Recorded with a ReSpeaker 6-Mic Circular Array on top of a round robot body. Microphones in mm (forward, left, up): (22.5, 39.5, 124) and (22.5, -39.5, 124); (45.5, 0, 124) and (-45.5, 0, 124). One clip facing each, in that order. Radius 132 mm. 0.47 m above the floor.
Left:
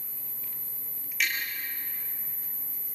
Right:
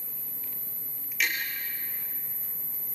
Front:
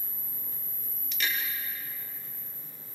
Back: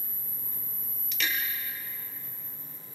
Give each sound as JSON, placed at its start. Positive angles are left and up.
{"t": 1.2, "sound": "tapping", "azimuth_deg": -175, "distance_m": 5.5}